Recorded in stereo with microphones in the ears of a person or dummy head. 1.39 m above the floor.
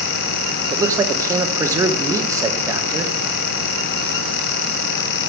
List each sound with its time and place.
0.7 s a man speaking: 15° right (ahead or behind), 1.2 m